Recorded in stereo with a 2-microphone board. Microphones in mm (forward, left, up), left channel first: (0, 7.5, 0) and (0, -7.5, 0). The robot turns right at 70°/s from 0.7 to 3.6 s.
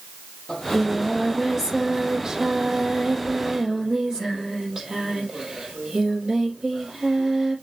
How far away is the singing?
About 5 m.